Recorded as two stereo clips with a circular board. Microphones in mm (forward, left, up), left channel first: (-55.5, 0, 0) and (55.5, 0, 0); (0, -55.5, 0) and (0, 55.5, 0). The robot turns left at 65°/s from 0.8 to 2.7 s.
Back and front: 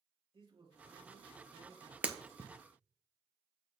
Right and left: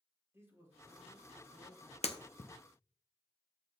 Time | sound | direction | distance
0.3 | a man speaking | 25° left | 3.5 m
2.0 | breaking glass | 75° right | 1.0 m